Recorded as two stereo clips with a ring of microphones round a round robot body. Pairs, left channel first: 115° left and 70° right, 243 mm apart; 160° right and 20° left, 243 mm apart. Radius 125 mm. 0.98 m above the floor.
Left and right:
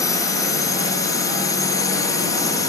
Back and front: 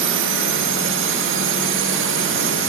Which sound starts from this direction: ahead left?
A drone, at 0.0 s.